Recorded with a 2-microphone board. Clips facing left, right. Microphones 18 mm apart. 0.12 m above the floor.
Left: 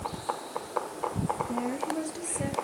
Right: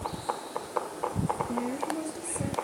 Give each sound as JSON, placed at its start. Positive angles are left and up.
{"t": 1.5, "sound": "a woman speaking", "side_deg": 15, "distance_m": 2.5}